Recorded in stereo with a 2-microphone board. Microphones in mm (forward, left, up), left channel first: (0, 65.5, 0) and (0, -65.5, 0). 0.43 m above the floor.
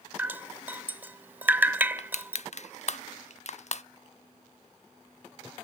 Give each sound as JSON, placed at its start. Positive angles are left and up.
{"t": 0.2, "sound": "dripping", "side_deg": -15, "distance_m": 0.8}
{"t": 2.0, "sound": "crushing", "side_deg": 60, "distance_m": 0.5}